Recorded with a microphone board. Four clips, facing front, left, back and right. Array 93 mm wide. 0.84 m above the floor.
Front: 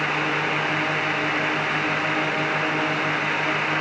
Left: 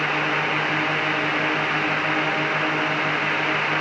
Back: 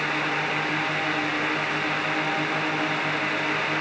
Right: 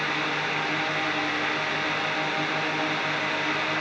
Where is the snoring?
I don't hear snoring.